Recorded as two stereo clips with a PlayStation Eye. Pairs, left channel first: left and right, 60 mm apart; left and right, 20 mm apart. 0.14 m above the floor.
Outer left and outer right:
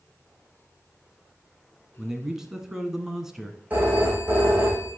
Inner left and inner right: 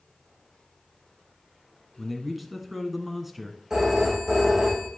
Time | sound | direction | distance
2.0 | a man speaking | 10° right (ahead or behind) | 1.4 m
3.7 | a phone ringing | 30° right (ahead or behind) | 5 m